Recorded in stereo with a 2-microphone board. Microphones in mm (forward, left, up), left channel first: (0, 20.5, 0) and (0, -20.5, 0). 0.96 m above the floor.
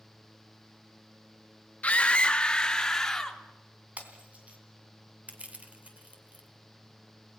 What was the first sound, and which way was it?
A scream, 35° left (ahead or behind).